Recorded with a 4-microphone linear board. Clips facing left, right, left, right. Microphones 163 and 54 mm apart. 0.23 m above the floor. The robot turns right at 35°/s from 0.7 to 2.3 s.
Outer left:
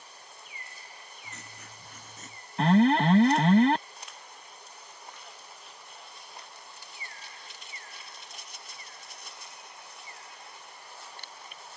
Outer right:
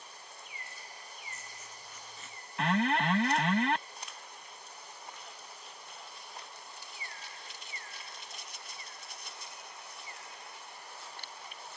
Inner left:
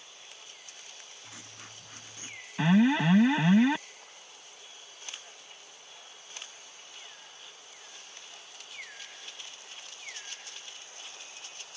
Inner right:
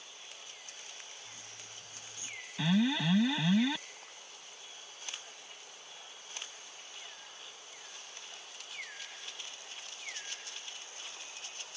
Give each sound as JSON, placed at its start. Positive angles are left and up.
{"t": 1.2, "sound": "writing", "azimuth_deg": 105}
{"t": 2.6, "sound": "an alarm", "side_deg": 35}